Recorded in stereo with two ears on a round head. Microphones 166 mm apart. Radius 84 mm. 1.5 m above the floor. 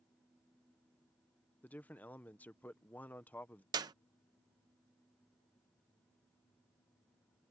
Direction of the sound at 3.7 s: 20° right (ahead or behind).